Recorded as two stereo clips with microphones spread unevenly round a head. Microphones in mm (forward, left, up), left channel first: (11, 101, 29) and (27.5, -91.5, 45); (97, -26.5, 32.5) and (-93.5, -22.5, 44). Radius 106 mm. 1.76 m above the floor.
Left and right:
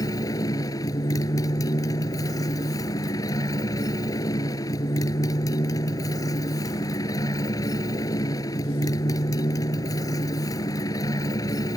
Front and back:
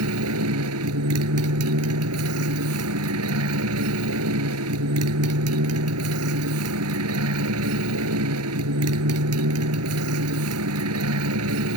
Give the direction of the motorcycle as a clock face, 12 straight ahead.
6 o'clock.